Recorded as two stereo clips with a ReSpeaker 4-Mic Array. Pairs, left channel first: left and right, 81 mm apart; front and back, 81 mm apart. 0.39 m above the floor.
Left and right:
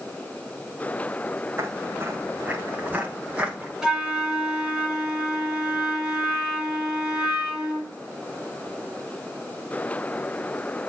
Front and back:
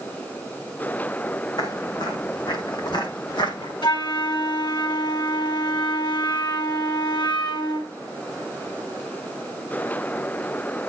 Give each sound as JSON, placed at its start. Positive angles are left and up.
{"t": 1.6, "sound": "footsteps", "azimuth_deg": -35, "distance_m": 5.0}
{"t": 3.8, "sound": "a flute", "azimuth_deg": -10, "distance_m": 4.0}